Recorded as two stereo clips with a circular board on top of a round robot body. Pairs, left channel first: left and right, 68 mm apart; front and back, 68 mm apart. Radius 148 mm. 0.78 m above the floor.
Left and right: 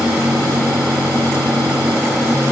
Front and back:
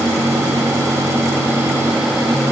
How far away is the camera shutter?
No camera shutter in this recording.